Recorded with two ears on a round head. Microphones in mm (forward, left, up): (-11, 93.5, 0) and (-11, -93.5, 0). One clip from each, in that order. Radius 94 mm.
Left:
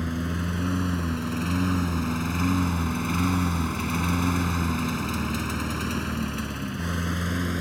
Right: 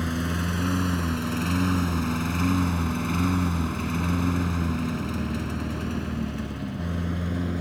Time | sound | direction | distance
0.0 | a lawn mower | 20° right (ahead or behind) | ?